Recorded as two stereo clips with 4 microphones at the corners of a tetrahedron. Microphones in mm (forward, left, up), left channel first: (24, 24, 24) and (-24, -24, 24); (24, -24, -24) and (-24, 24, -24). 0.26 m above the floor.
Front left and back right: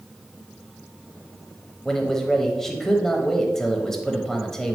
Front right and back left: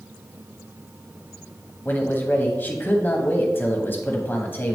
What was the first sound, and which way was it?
A man speaking, 35° right.